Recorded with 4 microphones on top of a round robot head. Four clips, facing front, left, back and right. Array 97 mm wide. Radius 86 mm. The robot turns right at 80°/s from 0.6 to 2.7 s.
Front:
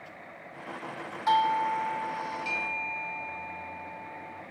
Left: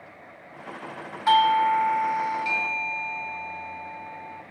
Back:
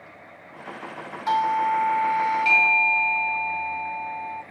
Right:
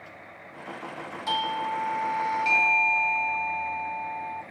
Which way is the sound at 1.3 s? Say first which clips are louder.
Left 10 dB, back 3 dB; 90° left.